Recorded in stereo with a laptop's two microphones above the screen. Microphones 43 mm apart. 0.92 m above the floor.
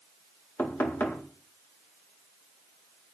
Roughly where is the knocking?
Left.